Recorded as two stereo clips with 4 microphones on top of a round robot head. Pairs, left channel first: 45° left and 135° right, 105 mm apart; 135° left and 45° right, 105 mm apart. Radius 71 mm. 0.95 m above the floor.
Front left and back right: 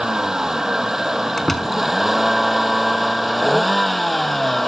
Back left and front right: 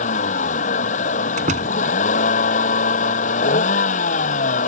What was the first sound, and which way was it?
A vehicle, 140° left.